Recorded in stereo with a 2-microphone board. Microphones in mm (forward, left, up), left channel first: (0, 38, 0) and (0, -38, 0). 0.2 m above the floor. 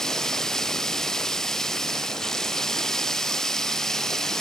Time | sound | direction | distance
0.0 | running water | 5° left (ahead or behind) | ?